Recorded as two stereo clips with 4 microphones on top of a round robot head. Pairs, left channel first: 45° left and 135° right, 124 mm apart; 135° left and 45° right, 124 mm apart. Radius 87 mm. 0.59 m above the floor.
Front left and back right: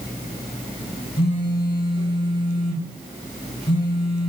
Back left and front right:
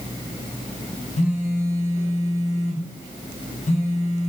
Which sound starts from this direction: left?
A phone buzzing, at 1.2 s.